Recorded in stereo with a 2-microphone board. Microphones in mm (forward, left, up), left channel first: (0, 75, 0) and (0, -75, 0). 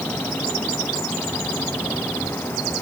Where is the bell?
No bell in this recording.